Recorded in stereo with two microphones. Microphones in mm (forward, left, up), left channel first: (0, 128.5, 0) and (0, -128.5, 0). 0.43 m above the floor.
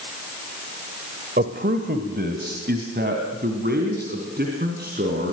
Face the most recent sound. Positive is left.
turn(degrees=-40)  # may be behind; listen again after turning